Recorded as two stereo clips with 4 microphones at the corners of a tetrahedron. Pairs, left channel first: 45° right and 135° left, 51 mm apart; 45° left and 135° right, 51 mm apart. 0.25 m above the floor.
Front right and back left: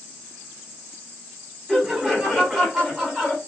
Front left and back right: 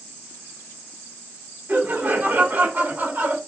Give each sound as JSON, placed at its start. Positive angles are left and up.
{"t": 1.7, "sound": "laughter", "azimuth_deg": -140, "distance_m": 2.0}